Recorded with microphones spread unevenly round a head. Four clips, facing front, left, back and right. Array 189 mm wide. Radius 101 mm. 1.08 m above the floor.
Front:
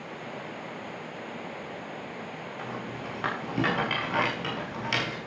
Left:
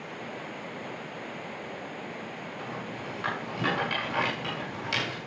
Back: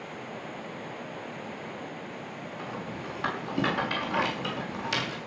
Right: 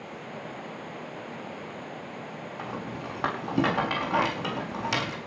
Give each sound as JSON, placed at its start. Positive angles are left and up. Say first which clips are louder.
{"t": 2.6, "sound": "a rattle", "louder": "right 3 dB, even", "azimuth_deg": -80, "distance_m": 5.0}